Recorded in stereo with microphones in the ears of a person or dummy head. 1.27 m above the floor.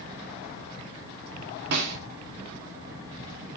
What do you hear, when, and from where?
1.7 s a snare drum: 65° right (ahead or behind), 2.0 m